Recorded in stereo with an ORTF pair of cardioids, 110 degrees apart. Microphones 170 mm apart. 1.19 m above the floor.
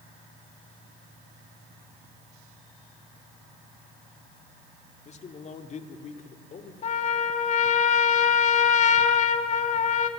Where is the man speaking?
40° left, 2.5 m; by 6.7 s 45° left, 3.5 m.